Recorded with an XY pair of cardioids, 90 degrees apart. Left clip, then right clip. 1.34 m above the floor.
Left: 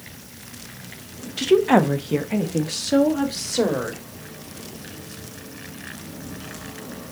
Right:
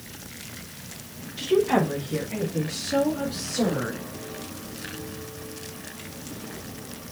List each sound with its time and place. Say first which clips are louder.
1.4 s a woman speaking: left 5 dB; 65° left, 1.3 m; by 4.0 s 70° left, 3 m